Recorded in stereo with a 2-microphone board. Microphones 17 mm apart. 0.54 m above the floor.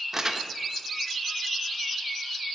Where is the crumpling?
30° right (ahead or behind), 0.7 m.